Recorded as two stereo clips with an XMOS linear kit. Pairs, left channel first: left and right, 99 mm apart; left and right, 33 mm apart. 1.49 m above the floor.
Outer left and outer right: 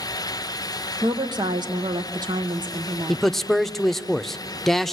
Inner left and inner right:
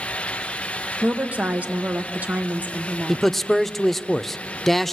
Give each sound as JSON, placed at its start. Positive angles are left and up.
{"t": 1.0, "sound": "a woman speaking", "side_deg": -50, "distance_m": 1.3}
{"t": 3.1, "sound": "a man speaking", "side_deg": 5, "distance_m": 0.5}